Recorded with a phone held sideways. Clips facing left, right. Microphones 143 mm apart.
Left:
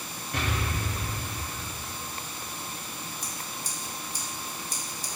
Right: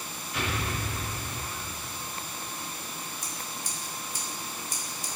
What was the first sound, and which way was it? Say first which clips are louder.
An explosion: left 1 dB; 60° left (ahead or behind).